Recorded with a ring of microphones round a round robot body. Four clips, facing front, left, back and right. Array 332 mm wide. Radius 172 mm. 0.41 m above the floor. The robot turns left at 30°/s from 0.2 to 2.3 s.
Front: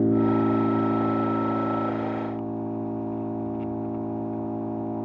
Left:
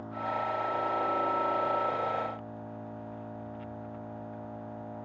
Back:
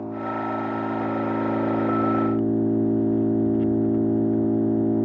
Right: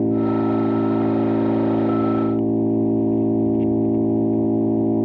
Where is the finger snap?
I don't hear a finger snap.